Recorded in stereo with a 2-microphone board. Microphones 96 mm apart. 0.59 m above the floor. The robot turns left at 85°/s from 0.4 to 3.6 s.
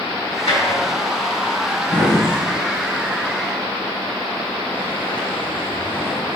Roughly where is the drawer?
Left.